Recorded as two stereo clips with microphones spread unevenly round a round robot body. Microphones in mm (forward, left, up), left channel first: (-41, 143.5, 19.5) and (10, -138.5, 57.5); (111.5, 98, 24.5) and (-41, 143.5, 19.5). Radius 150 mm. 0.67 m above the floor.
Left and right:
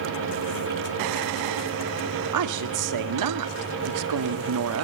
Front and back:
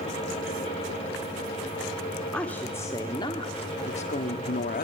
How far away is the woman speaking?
About 1.9 m.